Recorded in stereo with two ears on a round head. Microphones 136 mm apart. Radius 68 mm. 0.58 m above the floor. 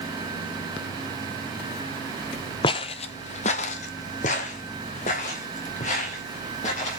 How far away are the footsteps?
About 0.6 m.